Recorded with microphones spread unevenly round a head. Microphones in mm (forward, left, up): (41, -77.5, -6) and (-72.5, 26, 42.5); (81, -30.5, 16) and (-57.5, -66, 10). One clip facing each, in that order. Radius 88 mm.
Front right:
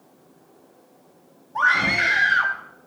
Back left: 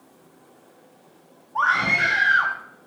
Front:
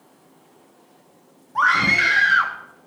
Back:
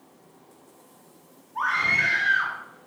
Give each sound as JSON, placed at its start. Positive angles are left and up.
{"t": 1.6, "sound": "a scream", "azimuth_deg": 35, "distance_m": 2.0}